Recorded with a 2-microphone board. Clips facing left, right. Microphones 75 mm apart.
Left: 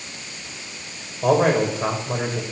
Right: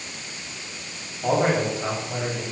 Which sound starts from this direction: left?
A man speaking, at 1.2 s.